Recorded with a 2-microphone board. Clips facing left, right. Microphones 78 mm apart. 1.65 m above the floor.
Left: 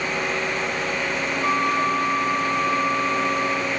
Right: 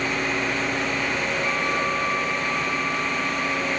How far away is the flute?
About 1.0 m.